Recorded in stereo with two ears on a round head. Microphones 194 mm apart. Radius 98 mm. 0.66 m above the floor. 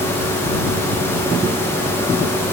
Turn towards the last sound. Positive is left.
No sound to turn to.